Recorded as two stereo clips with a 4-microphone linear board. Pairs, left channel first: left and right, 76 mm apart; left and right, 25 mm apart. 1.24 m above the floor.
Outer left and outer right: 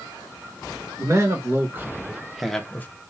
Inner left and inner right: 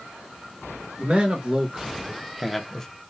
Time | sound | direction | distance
1.0 | a man speaking | 40° right (ahead or behind) | 2.5 m